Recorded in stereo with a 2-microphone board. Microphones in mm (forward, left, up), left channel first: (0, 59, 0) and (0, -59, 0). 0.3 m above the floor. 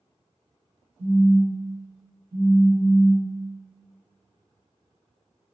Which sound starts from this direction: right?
A phone buzzing, at 1.0 s.